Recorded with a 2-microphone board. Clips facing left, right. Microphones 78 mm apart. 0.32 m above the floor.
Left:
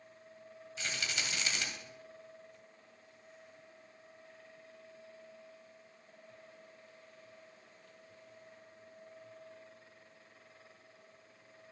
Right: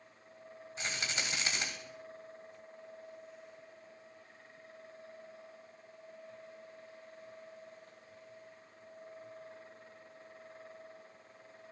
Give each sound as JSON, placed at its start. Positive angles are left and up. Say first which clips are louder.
{"t": 0.8, "sound": "a rattle", "louder": "right 1 dB", "side_deg": -30, "distance_m": 1.5}